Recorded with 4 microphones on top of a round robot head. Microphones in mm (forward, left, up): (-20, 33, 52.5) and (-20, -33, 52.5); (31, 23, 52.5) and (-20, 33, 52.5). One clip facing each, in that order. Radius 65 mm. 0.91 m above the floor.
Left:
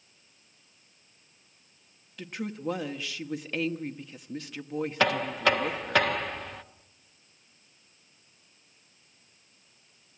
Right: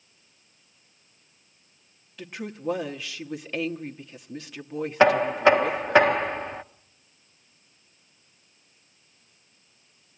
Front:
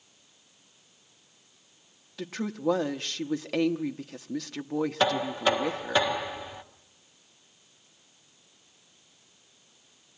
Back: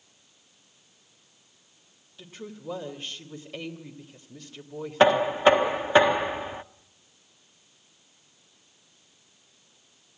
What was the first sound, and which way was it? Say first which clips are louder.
A woman speaking: even, front 10 dB; straight ahead.